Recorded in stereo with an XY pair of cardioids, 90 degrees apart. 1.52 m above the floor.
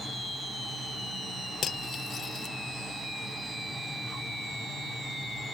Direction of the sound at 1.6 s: 60° left.